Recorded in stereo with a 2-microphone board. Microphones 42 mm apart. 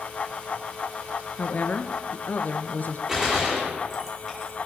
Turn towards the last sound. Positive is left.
turn(degrees=-10)  # may be behind; listen again after turning